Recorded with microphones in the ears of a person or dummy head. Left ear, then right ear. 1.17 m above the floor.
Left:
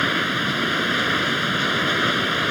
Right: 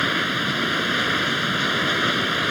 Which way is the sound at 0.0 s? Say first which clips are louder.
Left 1 dB; centre (ahead or behind).